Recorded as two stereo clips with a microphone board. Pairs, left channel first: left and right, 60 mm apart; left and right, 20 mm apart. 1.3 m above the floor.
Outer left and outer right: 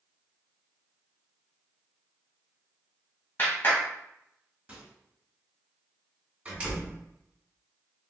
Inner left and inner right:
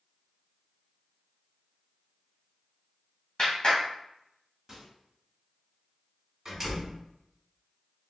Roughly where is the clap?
Left.